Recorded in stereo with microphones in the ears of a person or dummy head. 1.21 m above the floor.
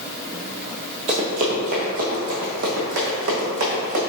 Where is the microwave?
No microwave in this recording.